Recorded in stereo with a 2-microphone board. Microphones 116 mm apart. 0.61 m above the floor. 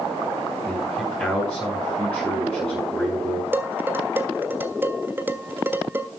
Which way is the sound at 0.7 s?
5° left (ahead or behind).